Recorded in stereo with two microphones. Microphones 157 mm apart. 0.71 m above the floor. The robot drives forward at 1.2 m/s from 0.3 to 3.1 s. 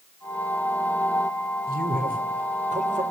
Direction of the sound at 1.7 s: 70° right (ahead or behind).